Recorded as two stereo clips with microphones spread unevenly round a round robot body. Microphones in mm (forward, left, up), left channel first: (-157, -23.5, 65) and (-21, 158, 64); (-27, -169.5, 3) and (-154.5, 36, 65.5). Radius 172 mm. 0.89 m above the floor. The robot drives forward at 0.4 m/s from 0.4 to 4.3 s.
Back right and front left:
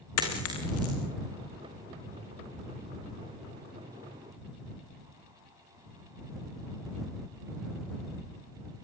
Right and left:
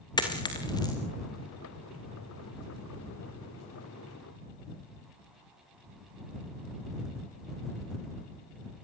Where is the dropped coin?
130° right, 5 m; by 1.0 s 135° right, 5 m.